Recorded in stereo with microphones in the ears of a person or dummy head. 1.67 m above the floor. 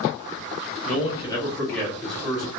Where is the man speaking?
45° left (ahead or behind), 1.2 m; by 2.5 s 10° left (ahead or behind), 2.5 m.